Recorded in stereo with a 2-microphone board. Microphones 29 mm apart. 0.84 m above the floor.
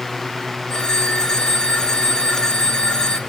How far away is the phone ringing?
About 3 m.